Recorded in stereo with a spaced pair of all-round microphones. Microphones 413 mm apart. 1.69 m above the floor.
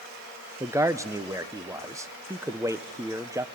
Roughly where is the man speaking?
Centre.